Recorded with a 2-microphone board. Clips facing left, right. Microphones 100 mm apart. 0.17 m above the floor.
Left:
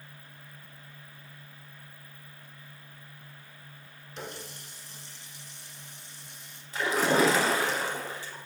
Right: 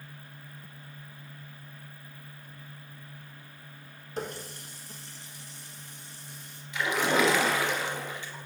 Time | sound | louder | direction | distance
4.2 | a running tap | right 5 dB | 45° right (ahead or behind) | 1.2 m
6.7 | a splash | left 2 dB | 40° left (ahead or behind) | 1.2 m